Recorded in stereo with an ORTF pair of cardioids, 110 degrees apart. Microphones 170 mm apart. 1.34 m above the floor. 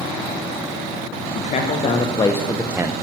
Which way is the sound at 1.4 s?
45° left.